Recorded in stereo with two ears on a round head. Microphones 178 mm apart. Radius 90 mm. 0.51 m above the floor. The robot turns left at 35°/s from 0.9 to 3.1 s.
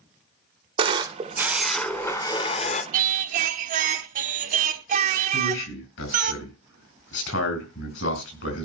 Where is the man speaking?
70° left (ahead or behind), 4.5 m.